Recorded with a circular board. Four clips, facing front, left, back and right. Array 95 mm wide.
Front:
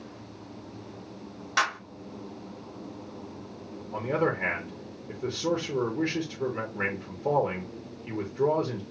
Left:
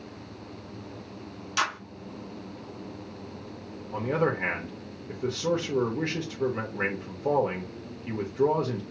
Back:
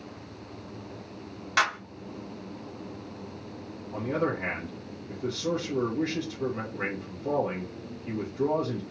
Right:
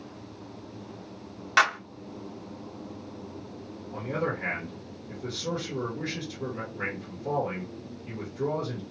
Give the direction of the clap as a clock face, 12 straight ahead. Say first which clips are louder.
Right 6 dB, back 1 dB; 3 o'clock.